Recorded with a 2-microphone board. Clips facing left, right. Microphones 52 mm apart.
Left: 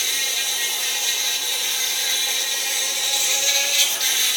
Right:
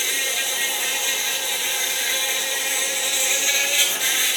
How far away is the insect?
About 1.2 m.